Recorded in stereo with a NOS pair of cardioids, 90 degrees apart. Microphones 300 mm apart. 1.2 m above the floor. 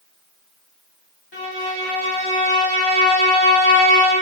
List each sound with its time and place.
1.3 s a violin: 40° left, 1.6 m